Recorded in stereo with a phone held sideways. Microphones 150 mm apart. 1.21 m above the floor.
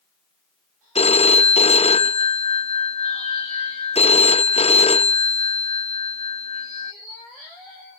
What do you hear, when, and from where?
0.9 s a phone ringing: 45° left (ahead or behind)